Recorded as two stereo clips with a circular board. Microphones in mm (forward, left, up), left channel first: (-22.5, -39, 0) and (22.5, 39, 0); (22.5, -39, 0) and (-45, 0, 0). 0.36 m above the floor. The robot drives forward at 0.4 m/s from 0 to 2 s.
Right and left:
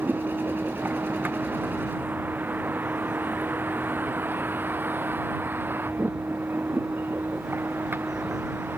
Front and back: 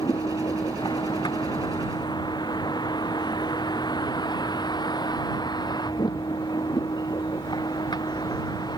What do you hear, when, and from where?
0.0 s a vehicle: 10° right; by 8.8 s 5° right